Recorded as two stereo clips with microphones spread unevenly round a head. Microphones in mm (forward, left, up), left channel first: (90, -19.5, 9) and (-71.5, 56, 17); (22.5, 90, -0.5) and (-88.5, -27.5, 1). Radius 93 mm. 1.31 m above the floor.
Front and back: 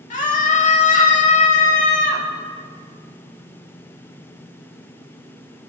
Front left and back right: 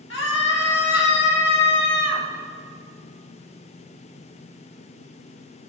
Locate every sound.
0.1 s a scream: 20° left, 2 m